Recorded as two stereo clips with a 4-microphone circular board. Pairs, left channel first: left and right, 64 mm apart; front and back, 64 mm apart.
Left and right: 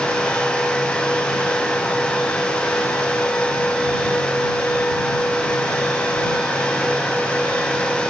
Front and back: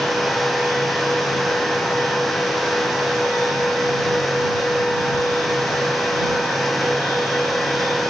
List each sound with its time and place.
Only background noise.